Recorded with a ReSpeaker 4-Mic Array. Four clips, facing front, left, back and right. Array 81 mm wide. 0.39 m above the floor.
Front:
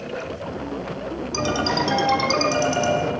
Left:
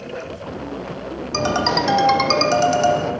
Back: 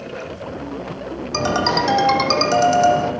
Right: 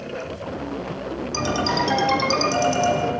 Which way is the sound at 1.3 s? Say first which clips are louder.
Left 4 dB, back 4 dB; 135° left.